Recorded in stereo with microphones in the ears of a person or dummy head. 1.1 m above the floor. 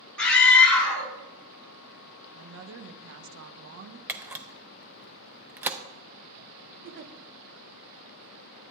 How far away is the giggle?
About 0.8 m.